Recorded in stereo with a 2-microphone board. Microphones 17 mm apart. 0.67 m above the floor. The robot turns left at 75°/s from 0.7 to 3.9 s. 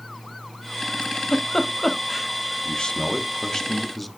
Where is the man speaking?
100° left, 1.3 m; by 4.1 s 10° left, 1.3 m.